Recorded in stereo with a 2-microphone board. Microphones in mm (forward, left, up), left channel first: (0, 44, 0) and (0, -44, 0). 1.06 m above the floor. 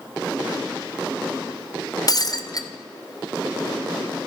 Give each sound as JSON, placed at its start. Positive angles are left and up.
{"t": 2.1, "sound": "breaking glass", "side_deg": 45, "distance_m": 0.5}